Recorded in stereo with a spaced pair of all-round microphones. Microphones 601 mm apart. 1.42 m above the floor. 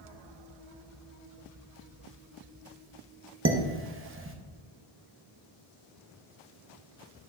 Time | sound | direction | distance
3.5 | dishes clattering | 20° right (ahead or behind) | 0.6 m